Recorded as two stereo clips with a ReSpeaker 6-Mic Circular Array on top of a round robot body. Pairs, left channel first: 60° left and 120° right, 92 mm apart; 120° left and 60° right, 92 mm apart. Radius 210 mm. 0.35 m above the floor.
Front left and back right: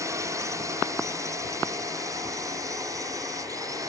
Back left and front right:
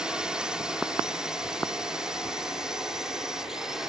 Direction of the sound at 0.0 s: 135° right.